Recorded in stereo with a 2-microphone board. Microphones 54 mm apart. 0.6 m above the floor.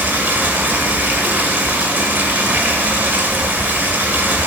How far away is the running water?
About 1.8 m.